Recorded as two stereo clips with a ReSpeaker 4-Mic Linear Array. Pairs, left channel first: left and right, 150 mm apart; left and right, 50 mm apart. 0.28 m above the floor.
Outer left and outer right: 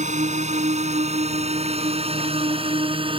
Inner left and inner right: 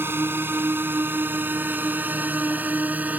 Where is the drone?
50° right (ahead or behind); by 3.2 s 35° right (ahead or behind).